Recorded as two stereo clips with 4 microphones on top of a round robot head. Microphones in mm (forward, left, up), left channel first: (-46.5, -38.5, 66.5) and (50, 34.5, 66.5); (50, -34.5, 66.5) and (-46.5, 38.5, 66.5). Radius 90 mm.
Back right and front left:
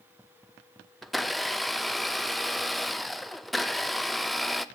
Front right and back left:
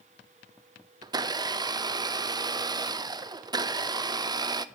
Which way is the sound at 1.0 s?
130° left.